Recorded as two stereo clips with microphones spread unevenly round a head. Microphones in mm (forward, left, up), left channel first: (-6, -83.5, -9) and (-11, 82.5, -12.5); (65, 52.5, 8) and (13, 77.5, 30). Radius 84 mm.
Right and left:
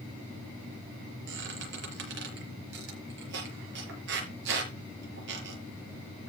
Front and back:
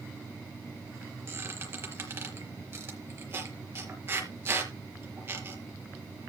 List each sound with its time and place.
1.3 s a squeak: 115° left, 5 m